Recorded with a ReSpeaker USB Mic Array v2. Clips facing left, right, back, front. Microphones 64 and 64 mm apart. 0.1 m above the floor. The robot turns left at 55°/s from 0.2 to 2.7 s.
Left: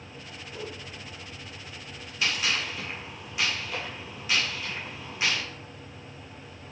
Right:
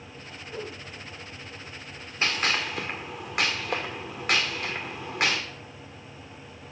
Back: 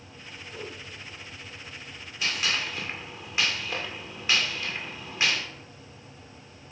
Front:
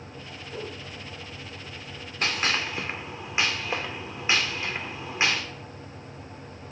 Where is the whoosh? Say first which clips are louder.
Right 2 dB, front 3 dB; 45° right, 1.5 m; by 0.8 s 65° right, 1.5 m.